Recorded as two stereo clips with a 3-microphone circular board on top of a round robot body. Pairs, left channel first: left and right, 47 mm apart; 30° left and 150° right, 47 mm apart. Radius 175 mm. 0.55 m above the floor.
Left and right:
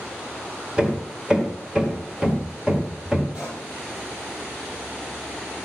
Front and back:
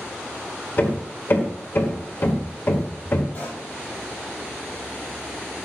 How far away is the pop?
About 5.5 m.